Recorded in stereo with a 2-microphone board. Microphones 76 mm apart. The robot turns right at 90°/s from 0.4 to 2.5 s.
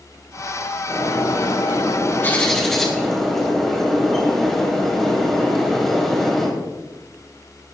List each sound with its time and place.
0.9 s a bird: 30° left, 2.5 m; by 6.5 s 175° left, 2.5 m